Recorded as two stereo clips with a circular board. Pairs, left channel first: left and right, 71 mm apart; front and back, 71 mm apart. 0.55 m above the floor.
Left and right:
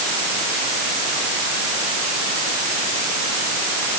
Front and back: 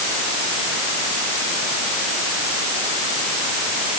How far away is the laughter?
I don't hear laughter.